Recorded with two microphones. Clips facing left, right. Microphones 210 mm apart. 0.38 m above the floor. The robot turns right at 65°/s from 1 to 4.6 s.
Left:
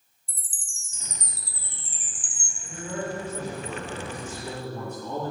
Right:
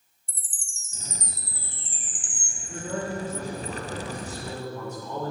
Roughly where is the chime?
Ahead left.